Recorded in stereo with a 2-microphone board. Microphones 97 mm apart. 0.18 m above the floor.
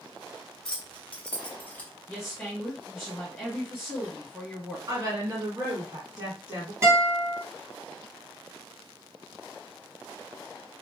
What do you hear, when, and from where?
0.7 s keys jangling: 5° left (ahead or behind), 1.2 m; by 1.9 s 15° left (ahead or behind), 0.7 m
2.1 s a woman speaking: centre (ahead or behind), 1.7 m
4.9 s a woman speaking: 40° right (ahead or behind), 1.7 m
6.8 s a guitar: 25° right (ahead or behind), 1.5 m